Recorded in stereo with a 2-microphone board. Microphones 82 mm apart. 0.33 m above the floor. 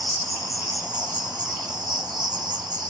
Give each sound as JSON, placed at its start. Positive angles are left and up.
{"t": 0.0, "sound": "an insect", "side_deg": -65, "distance_m": 0.7}